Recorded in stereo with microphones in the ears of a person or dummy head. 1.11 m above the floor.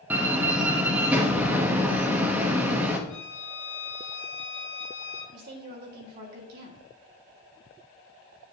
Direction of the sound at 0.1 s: 15° right (ahead or behind).